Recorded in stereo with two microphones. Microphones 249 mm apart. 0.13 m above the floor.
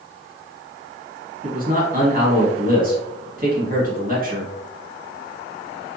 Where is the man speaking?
35° right (ahead or behind), 1.3 m.